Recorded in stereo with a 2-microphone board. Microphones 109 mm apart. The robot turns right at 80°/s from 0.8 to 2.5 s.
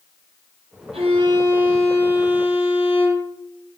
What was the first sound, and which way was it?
A violin, 70° right.